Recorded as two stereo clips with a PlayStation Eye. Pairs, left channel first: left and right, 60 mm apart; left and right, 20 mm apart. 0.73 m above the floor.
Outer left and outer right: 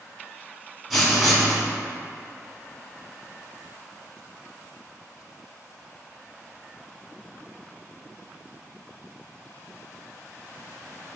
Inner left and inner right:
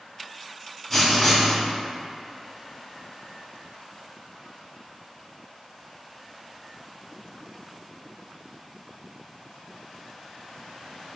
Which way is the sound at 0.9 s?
5° left (ahead or behind).